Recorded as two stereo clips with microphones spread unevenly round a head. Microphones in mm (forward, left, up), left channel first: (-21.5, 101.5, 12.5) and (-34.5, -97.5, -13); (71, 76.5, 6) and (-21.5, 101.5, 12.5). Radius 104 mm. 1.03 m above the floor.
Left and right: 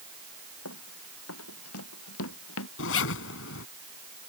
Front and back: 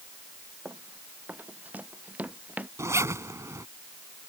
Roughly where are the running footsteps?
Left.